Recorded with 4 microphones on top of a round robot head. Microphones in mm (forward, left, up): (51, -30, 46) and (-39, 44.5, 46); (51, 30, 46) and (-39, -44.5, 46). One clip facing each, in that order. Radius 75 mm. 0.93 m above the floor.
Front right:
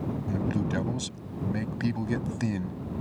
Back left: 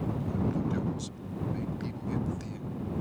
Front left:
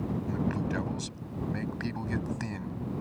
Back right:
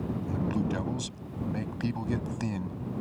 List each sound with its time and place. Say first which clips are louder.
0.3 s a man speaking: front right 2 dB, back right 2 dB; 65° right